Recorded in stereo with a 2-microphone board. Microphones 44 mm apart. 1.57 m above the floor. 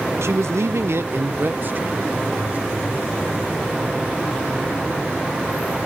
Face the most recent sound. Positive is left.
turn(degrees=-35)  # may be behind; listen again after turning